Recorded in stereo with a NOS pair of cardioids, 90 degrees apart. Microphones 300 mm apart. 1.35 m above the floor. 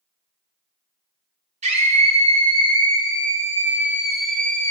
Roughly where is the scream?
Ahead.